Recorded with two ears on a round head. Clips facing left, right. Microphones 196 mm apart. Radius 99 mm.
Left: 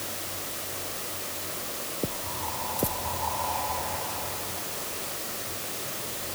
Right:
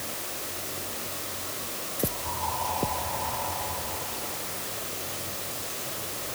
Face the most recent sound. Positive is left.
No sound to turn to.